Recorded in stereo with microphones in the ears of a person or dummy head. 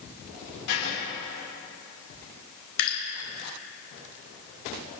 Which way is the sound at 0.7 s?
80° left.